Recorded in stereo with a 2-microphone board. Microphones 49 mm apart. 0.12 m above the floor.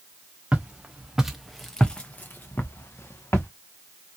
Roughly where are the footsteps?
Right.